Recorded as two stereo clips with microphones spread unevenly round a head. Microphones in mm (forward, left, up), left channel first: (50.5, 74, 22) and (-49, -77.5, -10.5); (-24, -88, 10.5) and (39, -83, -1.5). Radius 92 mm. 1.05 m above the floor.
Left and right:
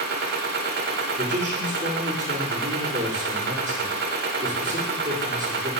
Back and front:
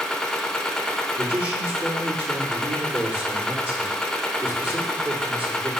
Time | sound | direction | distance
0.0 | a machine running | 120° right | 0.8 m
1.2 | a man speaking | 65° right | 3 m